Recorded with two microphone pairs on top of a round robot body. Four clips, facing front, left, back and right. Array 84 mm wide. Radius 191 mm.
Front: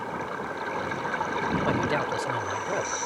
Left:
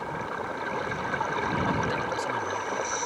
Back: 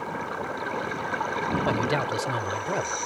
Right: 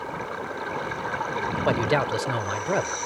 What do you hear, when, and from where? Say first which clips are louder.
1.6 s a man speaking: right 5 dB, back 1 dB; 95° right